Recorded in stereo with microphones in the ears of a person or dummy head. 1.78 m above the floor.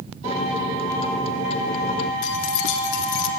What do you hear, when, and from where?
0.2 s a microwave: 30° left (ahead or behind), 1.2 m
2.2 s keys jangling: 60° left (ahead or behind), 1.8 m